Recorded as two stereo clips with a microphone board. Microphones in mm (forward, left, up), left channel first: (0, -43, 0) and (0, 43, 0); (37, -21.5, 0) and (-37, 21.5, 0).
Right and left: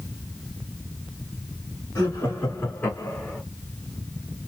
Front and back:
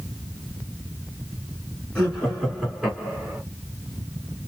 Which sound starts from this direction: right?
Laughter, at 1.9 s.